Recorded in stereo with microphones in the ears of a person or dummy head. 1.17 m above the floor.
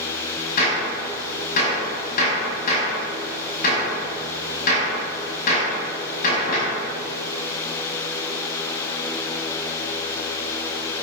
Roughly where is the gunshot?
Left.